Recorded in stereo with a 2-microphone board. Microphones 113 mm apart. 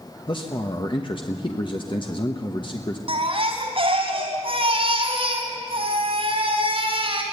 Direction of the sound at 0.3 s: 45° left (ahead or behind).